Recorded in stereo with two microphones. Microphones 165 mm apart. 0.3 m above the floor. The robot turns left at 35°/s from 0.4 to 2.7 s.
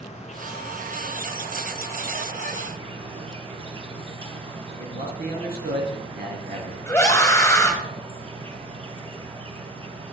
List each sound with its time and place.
0.0 s an insect: 45° left, 1.3 m; by 10.1 s 35° right, 1.3 m
4.8 s a man speaking: 75° right (ahead or behind), 3.5 m
6.9 s a scream: 20° left (ahead or behind), 1.3 m